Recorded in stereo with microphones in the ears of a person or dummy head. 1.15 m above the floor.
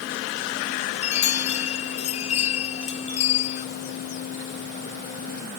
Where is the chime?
45° left (ahead or behind).